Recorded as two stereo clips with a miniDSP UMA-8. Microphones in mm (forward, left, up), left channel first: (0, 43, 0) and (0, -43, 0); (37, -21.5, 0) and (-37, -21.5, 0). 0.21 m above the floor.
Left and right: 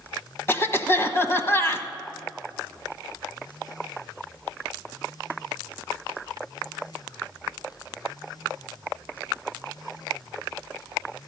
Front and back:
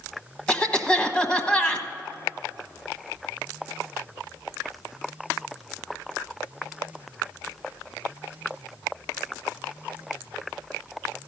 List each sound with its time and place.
0.5 s a cough: 65° left, 1.1 m